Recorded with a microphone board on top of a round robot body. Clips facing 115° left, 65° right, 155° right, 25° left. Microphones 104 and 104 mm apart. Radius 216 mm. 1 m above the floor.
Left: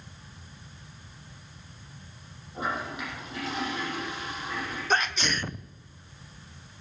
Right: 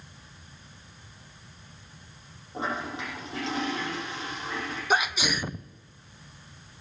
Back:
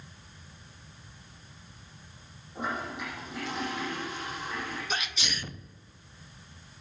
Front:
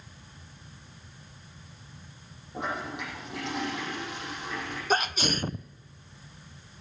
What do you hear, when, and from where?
2.5 s a toilet flushing: 5° right, 8 m
4.9 s a sneeze: 10° left, 0.7 m